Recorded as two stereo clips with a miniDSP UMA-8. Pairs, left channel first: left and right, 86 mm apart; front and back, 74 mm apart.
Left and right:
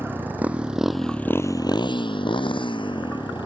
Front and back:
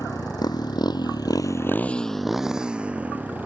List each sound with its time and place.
0.0 s a motorcycle: 25° right; by 3.5 s 110° left